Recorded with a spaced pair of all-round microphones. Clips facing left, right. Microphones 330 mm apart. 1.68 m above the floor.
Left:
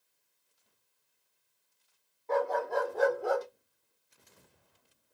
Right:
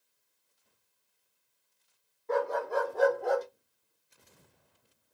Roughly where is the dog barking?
Centre.